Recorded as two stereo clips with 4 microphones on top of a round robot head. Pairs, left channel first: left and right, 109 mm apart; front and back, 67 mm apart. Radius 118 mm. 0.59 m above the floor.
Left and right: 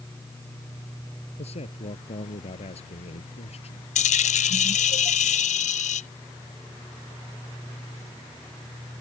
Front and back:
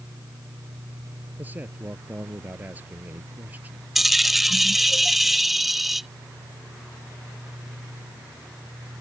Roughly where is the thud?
No thud in this recording.